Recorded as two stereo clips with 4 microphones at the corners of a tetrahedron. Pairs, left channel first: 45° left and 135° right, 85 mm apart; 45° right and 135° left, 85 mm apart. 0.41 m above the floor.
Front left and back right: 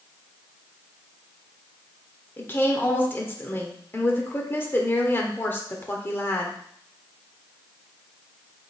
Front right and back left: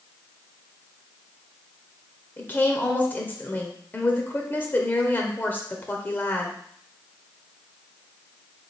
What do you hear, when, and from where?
2.4 s a woman speaking: 5° left, 0.9 m